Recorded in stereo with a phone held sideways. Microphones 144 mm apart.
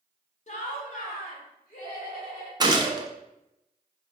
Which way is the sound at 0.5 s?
50° left (ahead or behind).